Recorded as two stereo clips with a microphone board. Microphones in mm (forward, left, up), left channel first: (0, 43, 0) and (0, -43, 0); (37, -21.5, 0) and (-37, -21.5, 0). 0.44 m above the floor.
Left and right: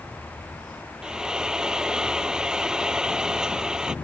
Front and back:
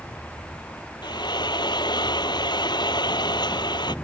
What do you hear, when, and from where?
1.0 s frying: 10° right